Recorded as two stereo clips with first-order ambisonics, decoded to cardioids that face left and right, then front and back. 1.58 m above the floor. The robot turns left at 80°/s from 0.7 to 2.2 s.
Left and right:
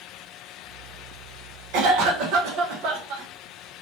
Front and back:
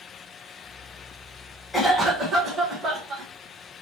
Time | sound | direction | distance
1.7 | a cough | 75° right | 1.2 m